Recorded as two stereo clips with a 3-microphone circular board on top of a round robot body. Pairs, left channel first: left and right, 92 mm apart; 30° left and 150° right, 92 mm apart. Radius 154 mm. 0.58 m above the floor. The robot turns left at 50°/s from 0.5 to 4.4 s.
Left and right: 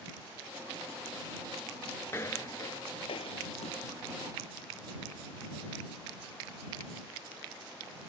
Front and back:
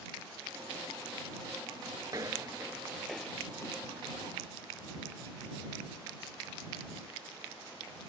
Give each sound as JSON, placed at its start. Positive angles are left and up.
{"t": 2.1, "sound": "footsteps", "azimuth_deg": 150}